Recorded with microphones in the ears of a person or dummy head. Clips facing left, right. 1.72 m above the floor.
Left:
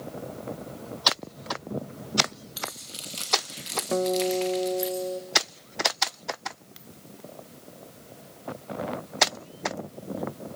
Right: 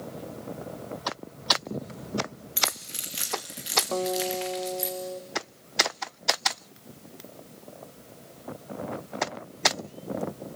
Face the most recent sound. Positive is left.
turn(degrees=30)  # may be behind; listen again after turning